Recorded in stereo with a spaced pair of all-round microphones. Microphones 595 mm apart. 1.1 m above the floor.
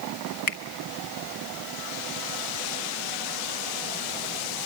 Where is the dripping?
No dripping in this recording.